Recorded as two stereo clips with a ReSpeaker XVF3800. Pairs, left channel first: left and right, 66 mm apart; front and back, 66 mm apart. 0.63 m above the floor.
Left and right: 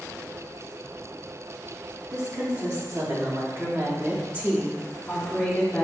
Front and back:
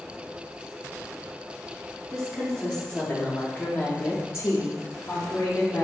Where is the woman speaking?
80° right, 1.6 m; by 5.8 s 30° left, 1.0 m.